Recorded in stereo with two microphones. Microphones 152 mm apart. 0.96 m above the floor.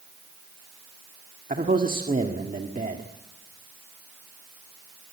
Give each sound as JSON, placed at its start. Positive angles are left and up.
{"t": 1.5, "sound": "a man speaking", "side_deg": -60, "distance_m": 1.7}